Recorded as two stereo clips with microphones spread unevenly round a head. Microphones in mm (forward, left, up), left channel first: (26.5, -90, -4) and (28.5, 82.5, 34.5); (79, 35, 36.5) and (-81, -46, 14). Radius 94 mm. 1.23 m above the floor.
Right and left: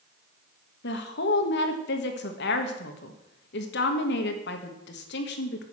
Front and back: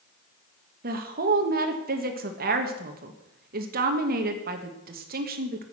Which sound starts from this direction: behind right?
A woman speaking, at 0.8 s.